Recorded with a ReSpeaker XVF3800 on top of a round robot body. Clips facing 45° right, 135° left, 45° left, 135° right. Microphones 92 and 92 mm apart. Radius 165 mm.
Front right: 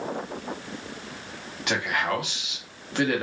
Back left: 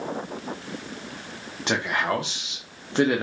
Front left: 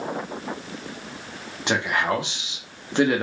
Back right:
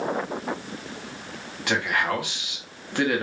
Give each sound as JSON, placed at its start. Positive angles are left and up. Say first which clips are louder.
{"t": 1.7, "sound": "a man speaking", "louder": "back left 1 dB, front left 2 dB", "azimuth_deg": 95, "distance_m": 1.1}